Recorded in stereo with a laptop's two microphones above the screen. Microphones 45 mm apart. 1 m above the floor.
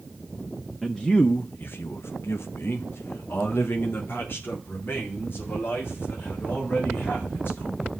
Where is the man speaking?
15° left (ahead or behind), 0.9 m; by 7.9 s 45° left (ahead or behind), 5 m.